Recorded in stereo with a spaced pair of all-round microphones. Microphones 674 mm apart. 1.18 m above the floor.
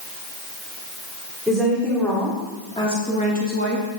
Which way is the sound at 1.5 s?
Centre (ahead or behind).